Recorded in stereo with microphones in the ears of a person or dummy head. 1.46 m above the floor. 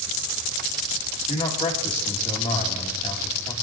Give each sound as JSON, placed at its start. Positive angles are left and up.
{"t": 1.3, "sound": "a man speaking", "side_deg": 20, "distance_m": 2.0}